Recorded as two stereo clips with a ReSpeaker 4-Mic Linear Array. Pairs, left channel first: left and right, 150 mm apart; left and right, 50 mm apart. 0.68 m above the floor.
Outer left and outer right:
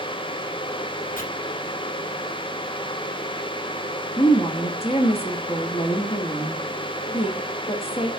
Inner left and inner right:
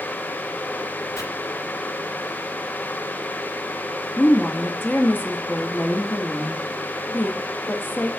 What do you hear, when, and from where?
1.2 s chopping: 85° left, 3 m
4.2 s a woman speaking: 40° left (ahead or behind), 1.3 m